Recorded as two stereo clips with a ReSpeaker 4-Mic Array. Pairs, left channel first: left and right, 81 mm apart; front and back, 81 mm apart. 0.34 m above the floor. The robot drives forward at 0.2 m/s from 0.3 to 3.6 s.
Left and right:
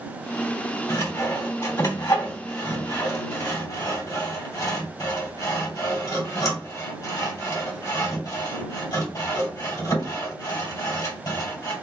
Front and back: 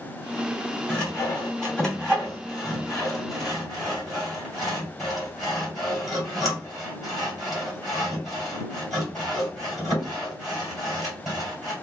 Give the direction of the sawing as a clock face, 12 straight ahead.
10 o'clock.